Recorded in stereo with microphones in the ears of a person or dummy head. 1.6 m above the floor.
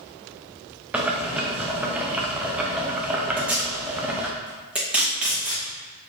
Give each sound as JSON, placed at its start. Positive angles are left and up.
{"t": 0.9, "sound": "boiling", "side_deg": -5, "distance_m": 0.6}
{"t": 3.4, "sound": "tape being pulled", "side_deg": -5, "distance_m": 1.0}